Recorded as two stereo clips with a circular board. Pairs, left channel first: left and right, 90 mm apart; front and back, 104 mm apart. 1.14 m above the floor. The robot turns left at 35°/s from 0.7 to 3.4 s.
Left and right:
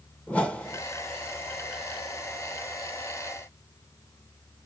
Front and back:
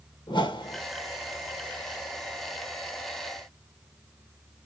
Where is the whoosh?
20° left, 1.0 m; by 0.8 s 15° left, 1.0 m.